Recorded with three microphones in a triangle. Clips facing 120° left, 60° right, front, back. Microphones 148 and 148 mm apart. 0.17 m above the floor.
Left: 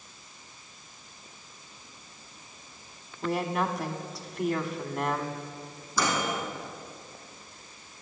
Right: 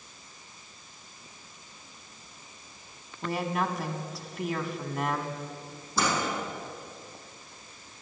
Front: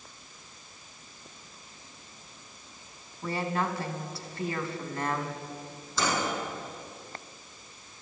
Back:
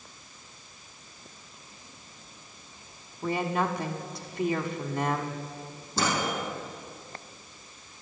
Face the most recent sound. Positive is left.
turn(degrees=-125)